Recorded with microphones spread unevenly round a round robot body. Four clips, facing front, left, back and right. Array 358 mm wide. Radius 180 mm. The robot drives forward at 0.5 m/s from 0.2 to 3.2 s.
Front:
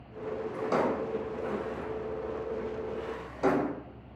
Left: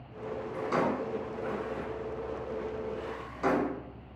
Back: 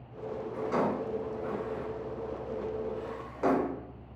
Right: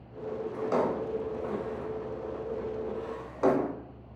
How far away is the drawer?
About 1.4 m.